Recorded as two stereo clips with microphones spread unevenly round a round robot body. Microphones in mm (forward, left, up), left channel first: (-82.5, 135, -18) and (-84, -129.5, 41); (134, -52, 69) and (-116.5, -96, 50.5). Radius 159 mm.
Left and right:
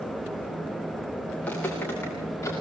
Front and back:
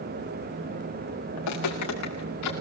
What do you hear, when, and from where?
1.4 s footsteps: straight ahead, 5 m; by 2.5 s 5° left, 5.5 m